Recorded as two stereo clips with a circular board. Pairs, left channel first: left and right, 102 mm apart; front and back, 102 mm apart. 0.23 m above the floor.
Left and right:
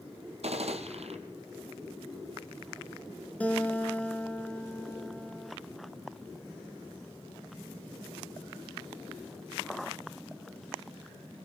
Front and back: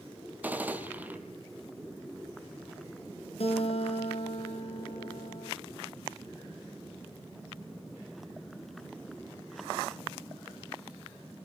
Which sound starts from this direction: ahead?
A guitar, at 3.4 s.